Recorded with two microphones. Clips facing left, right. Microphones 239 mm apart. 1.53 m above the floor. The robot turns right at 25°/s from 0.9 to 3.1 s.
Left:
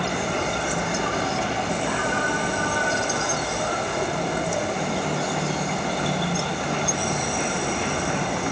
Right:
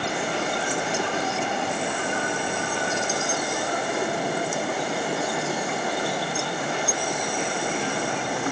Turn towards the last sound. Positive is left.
turn(degrees=115)